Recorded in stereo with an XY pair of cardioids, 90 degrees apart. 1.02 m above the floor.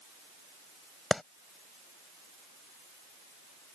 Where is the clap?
20° left.